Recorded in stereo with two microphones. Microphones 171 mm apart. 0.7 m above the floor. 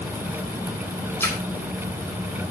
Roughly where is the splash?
Centre.